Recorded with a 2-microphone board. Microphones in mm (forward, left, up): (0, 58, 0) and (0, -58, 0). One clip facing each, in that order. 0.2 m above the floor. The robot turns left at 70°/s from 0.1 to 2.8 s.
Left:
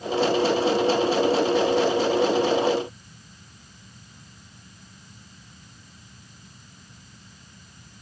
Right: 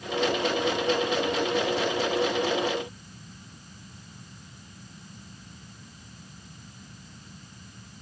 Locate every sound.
Only background noise.